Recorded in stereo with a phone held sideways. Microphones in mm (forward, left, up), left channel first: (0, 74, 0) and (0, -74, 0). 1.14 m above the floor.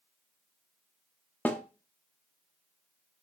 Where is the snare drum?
10° left (ahead or behind), 0.7 m.